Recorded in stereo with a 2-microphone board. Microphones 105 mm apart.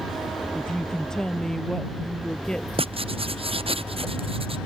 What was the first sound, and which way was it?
A woman speaking, 5° left (ahead or behind).